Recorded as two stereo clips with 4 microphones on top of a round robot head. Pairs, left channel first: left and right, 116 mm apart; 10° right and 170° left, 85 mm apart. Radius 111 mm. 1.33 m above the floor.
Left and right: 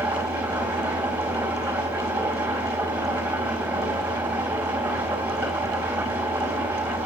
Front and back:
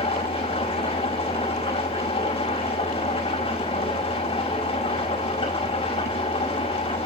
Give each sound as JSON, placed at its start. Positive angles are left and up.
{"t": 0.0, "sound": "an engine running", "azimuth_deg": -10, "distance_m": 5.5}